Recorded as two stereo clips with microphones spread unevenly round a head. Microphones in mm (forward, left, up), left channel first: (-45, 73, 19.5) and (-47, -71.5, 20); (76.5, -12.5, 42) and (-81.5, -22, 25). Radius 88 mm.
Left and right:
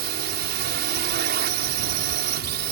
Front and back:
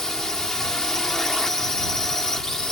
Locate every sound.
0.0 s a drone: 85° right